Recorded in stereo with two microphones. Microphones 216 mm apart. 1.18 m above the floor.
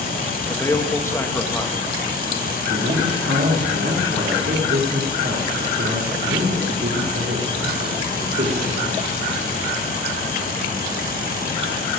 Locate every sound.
0.5 s a man speaking: 10° left (ahead or behind), 1.3 m
2.6 s a man speaking: 65° right (ahead or behind), 3 m